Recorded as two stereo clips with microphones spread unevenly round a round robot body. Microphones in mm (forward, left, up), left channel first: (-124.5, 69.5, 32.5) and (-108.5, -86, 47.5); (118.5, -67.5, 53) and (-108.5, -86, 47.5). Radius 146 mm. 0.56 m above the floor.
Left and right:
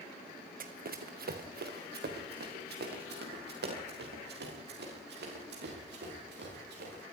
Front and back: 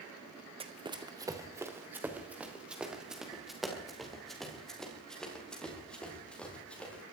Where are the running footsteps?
110° right, 2.5 m; by 7.0 s 80° right, 10 m.